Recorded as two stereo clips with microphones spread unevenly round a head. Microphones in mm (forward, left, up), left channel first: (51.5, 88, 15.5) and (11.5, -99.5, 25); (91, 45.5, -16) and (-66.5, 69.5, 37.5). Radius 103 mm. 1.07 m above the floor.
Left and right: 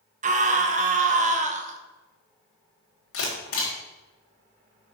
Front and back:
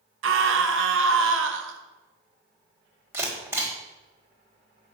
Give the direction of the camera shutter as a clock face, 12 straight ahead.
9 o'clock.